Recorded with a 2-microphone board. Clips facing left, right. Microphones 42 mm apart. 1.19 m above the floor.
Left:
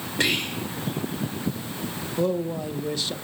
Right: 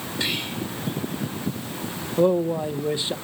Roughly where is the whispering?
Left.